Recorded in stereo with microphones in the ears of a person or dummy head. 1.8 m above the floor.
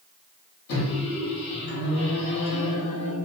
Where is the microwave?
70° left (ahead or behind), 1.2 m.